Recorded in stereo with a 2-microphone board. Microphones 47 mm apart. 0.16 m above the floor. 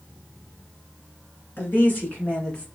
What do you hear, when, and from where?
1.6 s a woman speaking: 50° left (ahead or behind), 2.0 m; by 2.6 s 25° left (ahead or behind), 1.7 m